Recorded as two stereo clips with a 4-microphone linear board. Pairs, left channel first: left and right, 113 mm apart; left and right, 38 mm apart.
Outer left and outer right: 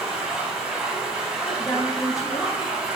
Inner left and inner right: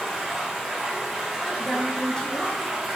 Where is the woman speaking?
30° left (ahead or behind), 0.8 m.